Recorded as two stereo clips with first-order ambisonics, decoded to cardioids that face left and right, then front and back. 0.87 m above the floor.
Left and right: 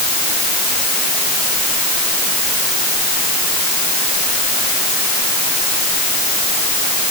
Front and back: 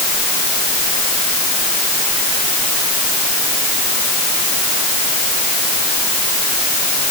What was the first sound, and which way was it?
Only background noise.